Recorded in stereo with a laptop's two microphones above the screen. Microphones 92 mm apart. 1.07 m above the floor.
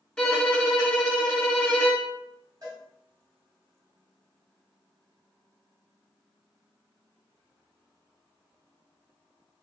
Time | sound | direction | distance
0.2 | a violin | 10° left (ahead or behind) | 0.6 m
2.6 | a cowbell | 45° right (ahead or behind) | 1.3 m